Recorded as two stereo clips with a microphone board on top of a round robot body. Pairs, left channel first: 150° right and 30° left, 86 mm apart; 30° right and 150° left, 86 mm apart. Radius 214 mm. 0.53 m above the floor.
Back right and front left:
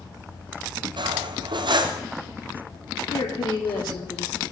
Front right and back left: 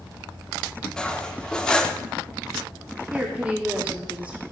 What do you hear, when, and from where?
1.0 s cutlery clinking: 50° left, 0.8 m
3.1 s a woman speaking: 130° right, 1.7 m